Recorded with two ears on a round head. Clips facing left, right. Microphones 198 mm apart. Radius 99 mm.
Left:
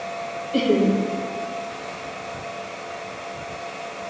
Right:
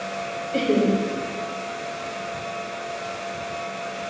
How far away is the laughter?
About 2 m.